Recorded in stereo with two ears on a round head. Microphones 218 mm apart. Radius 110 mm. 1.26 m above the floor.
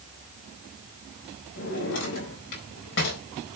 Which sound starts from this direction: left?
A drawer, at 1.6 s.